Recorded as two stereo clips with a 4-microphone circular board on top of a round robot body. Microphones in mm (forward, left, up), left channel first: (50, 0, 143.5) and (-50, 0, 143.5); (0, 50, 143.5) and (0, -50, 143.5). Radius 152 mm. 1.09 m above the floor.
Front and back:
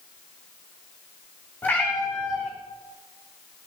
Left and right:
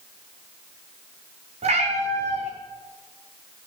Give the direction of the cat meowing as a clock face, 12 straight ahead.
2 o'clock.